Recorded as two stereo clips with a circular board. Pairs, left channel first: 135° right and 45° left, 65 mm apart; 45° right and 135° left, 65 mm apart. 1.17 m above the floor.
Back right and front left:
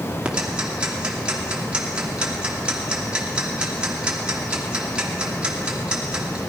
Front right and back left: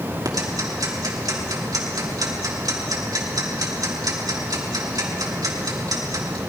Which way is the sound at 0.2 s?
120° left.